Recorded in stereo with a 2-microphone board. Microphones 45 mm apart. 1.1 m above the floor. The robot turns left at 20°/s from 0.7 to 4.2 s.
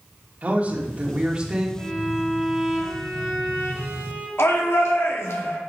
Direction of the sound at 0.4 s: 30° right (ahead or behind).